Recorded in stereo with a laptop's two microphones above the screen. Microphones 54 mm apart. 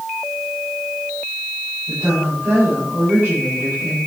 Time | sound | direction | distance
1.9 | a woman speaking | 45° right (ahead or behind) | 7.5 m